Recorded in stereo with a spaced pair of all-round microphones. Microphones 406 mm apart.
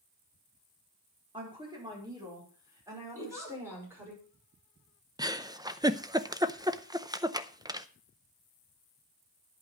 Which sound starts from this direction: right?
A giggle, at 3.1 s.